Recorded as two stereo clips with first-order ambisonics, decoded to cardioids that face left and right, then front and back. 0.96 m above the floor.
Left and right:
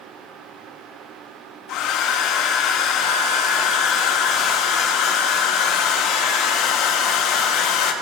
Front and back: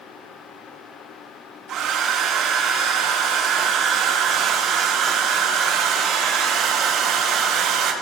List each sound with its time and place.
1.7 s a hair dryer: 125° left, 1.2 m